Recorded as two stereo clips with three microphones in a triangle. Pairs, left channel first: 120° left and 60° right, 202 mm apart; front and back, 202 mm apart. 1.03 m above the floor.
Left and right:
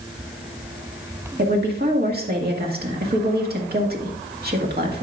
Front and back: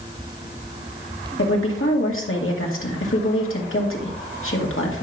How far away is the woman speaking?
About 1.8 m.